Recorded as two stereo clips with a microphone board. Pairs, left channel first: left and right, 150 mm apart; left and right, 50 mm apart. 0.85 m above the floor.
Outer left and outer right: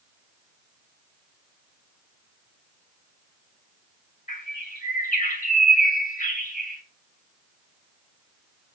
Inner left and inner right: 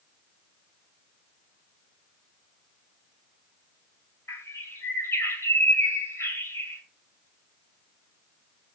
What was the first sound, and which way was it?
A bird, 60° left (ahead or behind).